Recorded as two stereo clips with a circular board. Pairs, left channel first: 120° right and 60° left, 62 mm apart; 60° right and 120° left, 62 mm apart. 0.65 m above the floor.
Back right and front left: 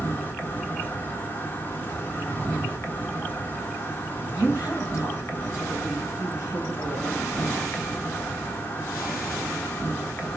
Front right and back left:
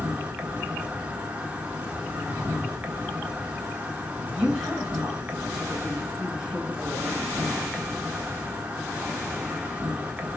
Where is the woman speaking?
165° right, 5 m.